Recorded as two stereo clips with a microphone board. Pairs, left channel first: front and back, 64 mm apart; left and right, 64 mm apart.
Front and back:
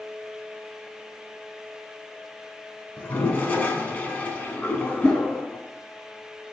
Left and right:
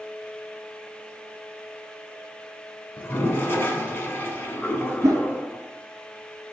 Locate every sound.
3.0 s a toilet flushing: 50° left, 0.6 m
5.0 s a whoosh: 75° right, 0.8 m